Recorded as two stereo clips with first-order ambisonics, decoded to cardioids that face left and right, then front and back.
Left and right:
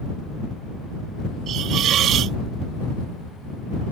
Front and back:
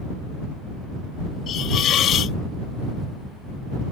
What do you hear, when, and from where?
1.5 s a hiss: 50° right